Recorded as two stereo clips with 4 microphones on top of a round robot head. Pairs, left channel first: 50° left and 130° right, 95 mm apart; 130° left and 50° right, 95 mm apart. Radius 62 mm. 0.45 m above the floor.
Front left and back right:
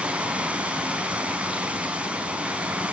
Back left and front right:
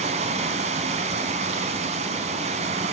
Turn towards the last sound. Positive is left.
turn(degrees=-50)